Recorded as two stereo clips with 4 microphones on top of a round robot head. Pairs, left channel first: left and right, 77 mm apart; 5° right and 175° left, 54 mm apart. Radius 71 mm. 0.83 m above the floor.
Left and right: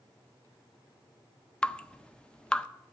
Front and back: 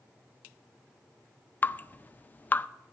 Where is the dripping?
20° left, 0.5 m.